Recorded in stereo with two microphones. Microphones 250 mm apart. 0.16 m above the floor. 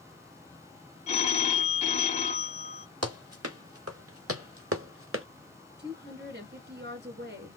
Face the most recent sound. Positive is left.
turn(degrees=-45)  # may be behind; listen again after turning